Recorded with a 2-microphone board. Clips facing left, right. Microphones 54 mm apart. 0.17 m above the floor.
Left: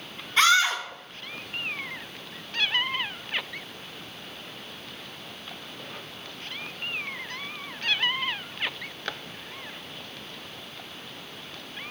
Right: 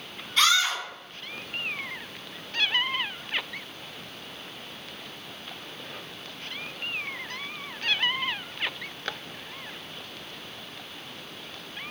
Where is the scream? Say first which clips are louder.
Left 3 dB; 20° left (ahead or behind), 1.2 m.